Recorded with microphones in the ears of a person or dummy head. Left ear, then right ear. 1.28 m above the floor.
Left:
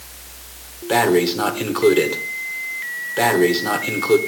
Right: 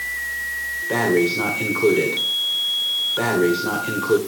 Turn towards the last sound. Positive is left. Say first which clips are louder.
# left 3 dB
turn(degrees=35)  # may be behind; listen again after turning